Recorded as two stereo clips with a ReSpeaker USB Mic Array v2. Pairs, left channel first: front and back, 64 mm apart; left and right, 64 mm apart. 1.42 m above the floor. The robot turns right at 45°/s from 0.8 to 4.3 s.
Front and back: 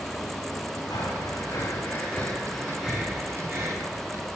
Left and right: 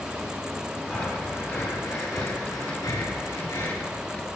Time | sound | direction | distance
0.9 | breathing | 10° left | 5 m